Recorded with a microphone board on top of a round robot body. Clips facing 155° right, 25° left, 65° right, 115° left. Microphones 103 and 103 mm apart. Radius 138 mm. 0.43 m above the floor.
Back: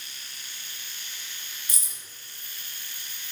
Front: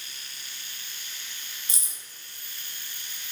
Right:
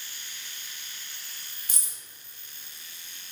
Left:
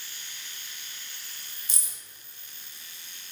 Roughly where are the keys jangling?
Ahead right.